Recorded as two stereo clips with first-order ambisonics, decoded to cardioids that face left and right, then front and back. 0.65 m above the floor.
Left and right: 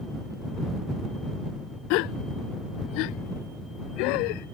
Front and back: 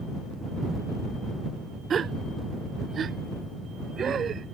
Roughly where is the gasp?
Behind left.